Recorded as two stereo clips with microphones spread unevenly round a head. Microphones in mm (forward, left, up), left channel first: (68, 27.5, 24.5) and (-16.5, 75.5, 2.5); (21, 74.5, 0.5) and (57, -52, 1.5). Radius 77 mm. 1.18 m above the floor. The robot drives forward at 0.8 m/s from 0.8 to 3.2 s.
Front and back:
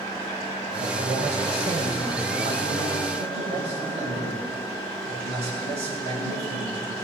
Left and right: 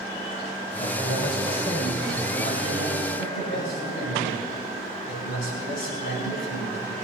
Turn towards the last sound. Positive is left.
turn(degrees=145)